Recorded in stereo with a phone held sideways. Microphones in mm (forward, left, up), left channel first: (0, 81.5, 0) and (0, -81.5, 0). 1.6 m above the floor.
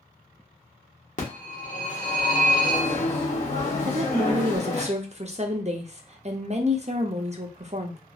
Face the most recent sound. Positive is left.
turn(degrees=-45)  # may be behind; listen again after turning